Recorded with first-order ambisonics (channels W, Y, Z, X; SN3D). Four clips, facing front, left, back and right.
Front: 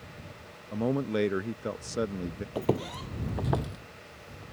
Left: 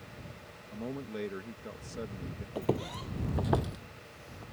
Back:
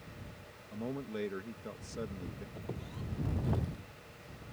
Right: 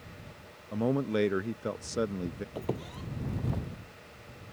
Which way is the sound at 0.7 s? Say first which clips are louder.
Right 11 dB, front 11 dB; 40° right.